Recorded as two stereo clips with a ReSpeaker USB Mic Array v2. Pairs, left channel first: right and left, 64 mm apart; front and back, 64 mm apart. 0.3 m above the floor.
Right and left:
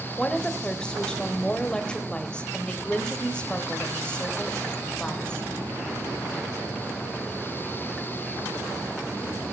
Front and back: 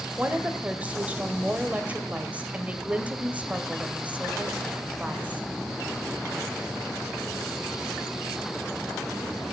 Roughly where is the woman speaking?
Behind right.